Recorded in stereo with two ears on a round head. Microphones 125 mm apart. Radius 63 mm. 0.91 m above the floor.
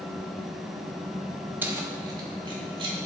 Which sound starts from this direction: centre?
Keys jangling, at 1.6 s.